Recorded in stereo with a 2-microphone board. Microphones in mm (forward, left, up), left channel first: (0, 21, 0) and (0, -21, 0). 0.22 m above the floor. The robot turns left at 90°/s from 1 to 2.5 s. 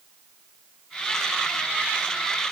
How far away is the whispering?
No whispering in this recording.